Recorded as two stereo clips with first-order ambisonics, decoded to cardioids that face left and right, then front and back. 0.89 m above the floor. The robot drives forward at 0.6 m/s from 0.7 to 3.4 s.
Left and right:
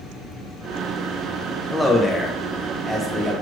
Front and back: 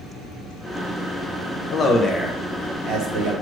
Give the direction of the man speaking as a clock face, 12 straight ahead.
12 o'clock.